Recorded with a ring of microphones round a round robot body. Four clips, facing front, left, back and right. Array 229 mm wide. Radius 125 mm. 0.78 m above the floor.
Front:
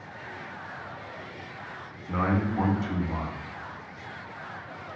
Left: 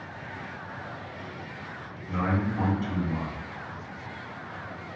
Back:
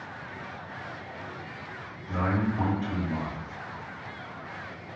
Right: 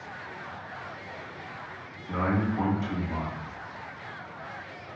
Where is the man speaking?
25° right, 0.9 m.